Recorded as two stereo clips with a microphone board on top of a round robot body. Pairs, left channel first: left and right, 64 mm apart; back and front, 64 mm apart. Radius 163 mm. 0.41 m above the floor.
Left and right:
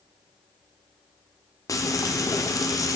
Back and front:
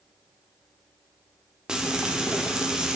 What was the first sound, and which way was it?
Frying, 80° left.